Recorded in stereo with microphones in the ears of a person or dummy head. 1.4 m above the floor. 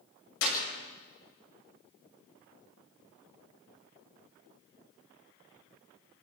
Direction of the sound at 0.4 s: 70° left (ahead or behind).